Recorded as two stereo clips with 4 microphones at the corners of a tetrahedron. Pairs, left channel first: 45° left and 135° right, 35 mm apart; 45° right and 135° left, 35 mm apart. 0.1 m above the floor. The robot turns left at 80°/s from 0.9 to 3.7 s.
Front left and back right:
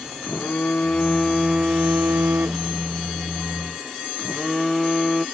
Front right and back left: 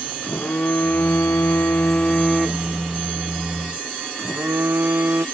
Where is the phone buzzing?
5° right; by 5.2 s 130° left.